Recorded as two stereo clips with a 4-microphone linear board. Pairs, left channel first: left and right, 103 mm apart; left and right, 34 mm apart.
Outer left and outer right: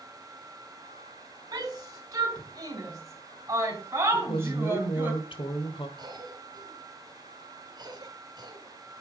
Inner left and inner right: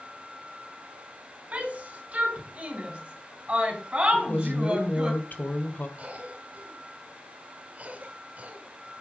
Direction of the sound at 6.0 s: 50° right (ahead or behind).